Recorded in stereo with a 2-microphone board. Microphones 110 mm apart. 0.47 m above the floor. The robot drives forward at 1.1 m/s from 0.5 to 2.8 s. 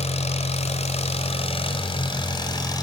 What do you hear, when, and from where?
0.0 s an engine running: 65° left (ahead or behind), 1.8 m; by 2.8 s 35° left (ahead or behind), 3 m